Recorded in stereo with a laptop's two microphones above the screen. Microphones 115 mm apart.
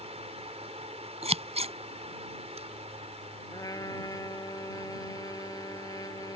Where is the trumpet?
35° left (ahead or behind).